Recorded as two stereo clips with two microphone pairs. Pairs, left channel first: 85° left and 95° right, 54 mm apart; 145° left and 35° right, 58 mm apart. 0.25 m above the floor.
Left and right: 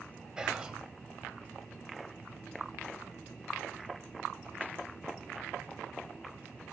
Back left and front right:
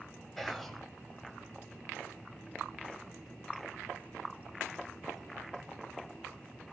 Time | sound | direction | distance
0.4 | whispering | 135° right | 1.0 m